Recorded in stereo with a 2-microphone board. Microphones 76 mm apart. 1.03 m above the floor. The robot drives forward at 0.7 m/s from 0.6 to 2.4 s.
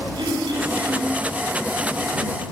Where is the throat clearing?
80° right, 7.5 m.